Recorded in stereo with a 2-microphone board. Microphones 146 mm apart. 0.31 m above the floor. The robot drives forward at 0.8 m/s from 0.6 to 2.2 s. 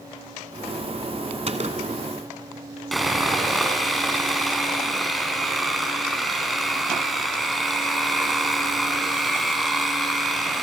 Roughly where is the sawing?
Centre.